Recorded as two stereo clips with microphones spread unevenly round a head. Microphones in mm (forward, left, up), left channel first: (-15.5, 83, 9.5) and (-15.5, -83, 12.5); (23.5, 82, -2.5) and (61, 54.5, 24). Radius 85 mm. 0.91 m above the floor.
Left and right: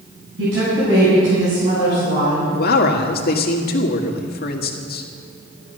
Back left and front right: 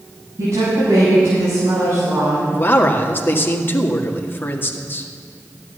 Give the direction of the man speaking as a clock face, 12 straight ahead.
8 o'clock.